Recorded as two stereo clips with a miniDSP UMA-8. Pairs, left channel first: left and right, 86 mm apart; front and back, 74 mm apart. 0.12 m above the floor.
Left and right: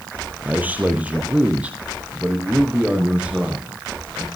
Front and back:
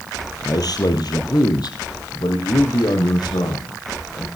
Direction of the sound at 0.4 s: 20° right.